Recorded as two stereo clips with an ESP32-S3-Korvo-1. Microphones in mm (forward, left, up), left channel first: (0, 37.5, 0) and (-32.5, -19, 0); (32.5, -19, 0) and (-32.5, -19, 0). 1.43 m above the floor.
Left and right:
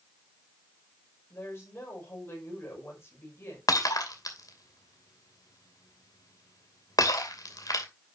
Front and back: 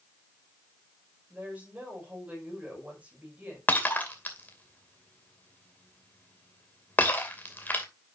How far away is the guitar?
I don't hear a guitar.